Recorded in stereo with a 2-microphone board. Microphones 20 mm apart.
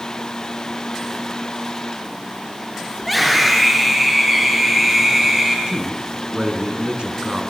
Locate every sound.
3.0 s a scream: centre (ahead or behind), 8 m; by 5.6 s 15° right (ahead or behind), 8.5 m
5.7 s a man speaking: 65° right (ahead or behind), 4.5 m